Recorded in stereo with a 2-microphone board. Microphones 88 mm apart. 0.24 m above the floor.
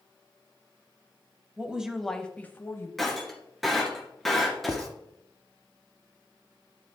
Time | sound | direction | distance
1.6 | a woman speaking | 15° right (ahead or behind) | 1.2 m
3.0 | breaking glass | centre (ahead or behind) | 2.5 m
4.7 | writing | 40° right (ahead or behind) | 0.8 m